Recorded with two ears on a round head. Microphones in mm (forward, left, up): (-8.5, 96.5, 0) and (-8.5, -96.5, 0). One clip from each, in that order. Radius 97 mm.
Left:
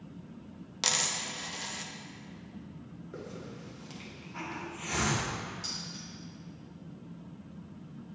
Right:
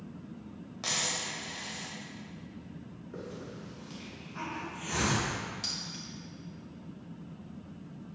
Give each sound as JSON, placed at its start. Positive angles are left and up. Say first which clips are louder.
{"t": 0.8, "sound": "a dropped coin", "louder": "left 2 dB", "side_deg": 80, "distance_m": 0.8}
{"t": 3.1, "sound": "a hiss", "louder": "right 1 dB", "side_deg": 25, "distance_m": 1.2}
{"t": 5.6, "sound": "keys jangling", "louder": "right 4 dB", "side_deg": -40, "distance_m": 2.5}